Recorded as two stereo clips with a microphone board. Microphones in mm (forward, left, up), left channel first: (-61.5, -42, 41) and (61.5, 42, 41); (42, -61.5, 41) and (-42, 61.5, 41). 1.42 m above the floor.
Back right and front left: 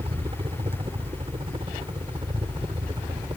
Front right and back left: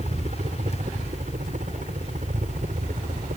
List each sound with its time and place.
0.0 s a helicopter: 85° left; by 3.4 s 95° left